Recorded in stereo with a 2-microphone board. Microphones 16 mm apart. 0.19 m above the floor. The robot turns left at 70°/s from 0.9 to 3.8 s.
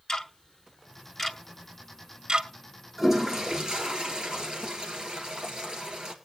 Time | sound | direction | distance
0.1 | ticking | 45° left (ahead or behind) | 0.8 m
3.0 | a toilet flushing | 10° right | 2.0 m